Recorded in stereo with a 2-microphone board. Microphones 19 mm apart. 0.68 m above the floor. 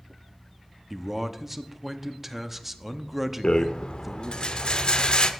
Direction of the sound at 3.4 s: 50° left (ahead or behind).